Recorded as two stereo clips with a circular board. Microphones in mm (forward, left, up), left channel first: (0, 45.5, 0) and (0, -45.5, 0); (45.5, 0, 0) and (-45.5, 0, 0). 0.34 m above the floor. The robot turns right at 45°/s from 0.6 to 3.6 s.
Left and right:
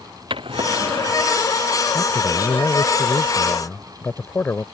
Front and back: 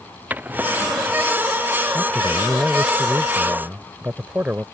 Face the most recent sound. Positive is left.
turn(degrees=130)